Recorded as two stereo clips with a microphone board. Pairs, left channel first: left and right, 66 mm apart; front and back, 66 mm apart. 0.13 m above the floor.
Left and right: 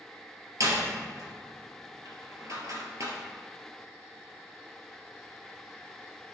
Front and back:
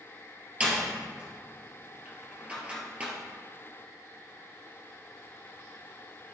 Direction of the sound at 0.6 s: 110° right.